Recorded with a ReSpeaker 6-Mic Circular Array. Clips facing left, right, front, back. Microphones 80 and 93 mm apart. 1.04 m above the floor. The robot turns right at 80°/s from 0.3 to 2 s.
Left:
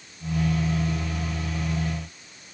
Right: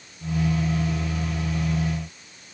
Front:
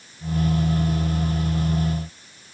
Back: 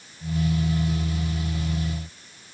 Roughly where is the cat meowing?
I don't hear a cat meowing.